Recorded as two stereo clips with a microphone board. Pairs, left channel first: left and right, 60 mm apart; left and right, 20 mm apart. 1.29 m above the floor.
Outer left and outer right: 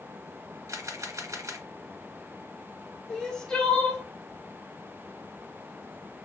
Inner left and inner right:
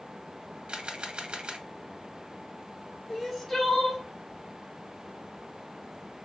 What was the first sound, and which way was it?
A camera shutter, 55° right (ahead or behind).